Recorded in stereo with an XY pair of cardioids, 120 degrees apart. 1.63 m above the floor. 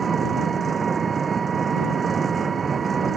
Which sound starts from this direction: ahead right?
An engine running, at 0.0 s.